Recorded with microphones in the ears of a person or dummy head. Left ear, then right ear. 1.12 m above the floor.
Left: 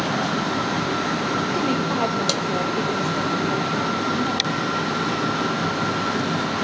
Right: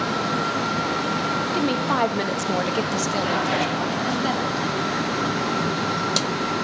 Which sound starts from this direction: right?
A woman speaking, at 1.5 s.